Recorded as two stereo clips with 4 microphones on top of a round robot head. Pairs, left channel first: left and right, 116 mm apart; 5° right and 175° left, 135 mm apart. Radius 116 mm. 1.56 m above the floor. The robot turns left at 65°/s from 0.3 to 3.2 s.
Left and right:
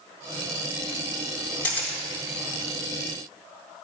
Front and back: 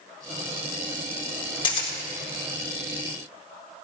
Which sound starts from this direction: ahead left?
A camera shutter, at 1.6 s.